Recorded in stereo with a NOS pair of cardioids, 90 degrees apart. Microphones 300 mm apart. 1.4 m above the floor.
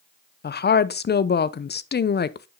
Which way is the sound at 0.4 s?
30° left.